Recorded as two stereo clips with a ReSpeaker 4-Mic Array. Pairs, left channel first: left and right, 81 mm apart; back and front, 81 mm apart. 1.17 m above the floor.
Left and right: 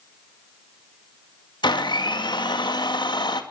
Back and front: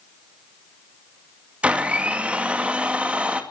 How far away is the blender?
About 2 m.